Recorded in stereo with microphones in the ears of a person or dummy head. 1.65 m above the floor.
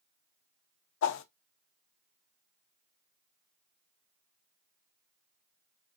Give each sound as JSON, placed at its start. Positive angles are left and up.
{"t": 1.0, "sound": "a whoosh", "side_deg": 65, "distance_m": 0.5}